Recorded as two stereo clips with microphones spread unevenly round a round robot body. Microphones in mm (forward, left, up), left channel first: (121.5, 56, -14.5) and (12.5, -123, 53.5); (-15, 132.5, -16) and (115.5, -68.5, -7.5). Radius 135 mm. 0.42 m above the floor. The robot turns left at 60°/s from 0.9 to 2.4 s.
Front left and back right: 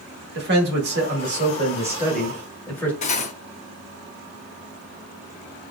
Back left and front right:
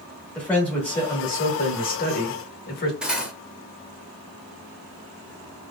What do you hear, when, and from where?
0.3 s a man speaking: 160° right, 0.9 m; by 2.9 s 110° left, 0.9 m
3.0 s cutlery clinking: 30° left, 0.6 m